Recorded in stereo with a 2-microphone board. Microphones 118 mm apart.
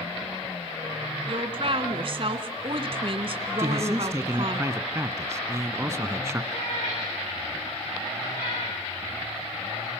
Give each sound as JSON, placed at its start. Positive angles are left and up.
{"t": 1.3, "sound": "a woman speaking", "side_deg": -50, "distance_m": 1.8}
{"t": 3.6, "sound": "a man speaking", "side_deg": -25, "distance_m": 1.6}
{"t": 6.5, "sound": "a cat meowing", "side_deg": 80, "distance_m": 10.0}